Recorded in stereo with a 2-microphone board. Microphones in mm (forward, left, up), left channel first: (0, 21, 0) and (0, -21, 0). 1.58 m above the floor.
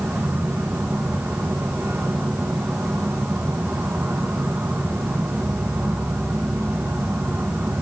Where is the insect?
80° right, 3 m.